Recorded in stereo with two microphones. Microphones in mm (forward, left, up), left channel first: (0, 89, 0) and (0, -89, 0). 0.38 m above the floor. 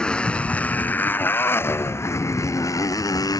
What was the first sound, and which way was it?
A motorcycle, 5° left (ahead or behind).